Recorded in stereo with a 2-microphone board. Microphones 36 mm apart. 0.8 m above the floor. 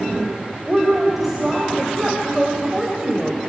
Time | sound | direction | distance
0.7 | a woman speaking | 15° right (ahead or behind) | 3.5 m